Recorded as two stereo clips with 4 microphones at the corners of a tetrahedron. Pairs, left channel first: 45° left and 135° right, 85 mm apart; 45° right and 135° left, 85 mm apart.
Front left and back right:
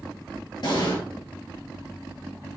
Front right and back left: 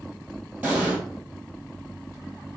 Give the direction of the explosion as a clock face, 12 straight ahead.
10 o'clock.